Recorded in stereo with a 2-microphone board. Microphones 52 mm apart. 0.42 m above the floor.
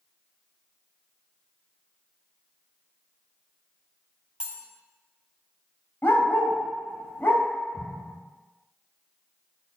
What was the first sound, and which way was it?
Cutlery clinking, 15° right (ahead or behind).